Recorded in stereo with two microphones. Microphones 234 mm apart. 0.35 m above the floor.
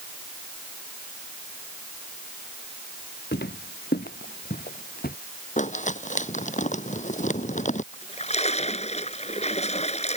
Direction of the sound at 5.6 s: 30° left (ahead or behind).